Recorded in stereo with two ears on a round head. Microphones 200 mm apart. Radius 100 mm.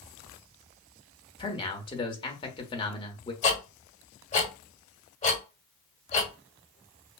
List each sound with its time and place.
1.4 s a man speaking: 20° left (ahead or behind), 1.1 m
3.4 s ticking: 35° left (ahead or behind), 1.8 m